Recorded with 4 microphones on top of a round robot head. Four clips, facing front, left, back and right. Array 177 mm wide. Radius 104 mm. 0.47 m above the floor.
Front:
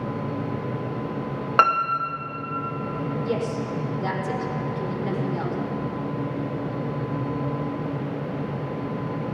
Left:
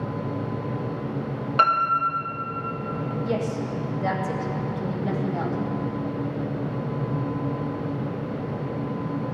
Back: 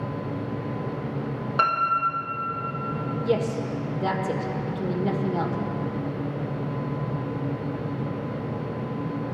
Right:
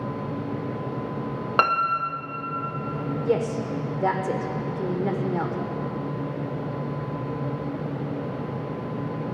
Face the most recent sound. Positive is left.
turn(degrees=-110)